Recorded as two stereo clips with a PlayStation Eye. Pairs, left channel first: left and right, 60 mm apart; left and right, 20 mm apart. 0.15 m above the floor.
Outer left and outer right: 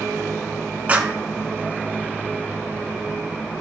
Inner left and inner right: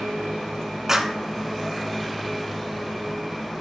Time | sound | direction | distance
0.9 | a clap | 25° right (ahead or behind) | 1.4 m